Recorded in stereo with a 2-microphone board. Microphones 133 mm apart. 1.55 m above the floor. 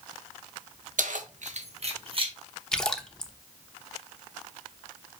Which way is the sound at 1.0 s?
75° right (ahead or behind).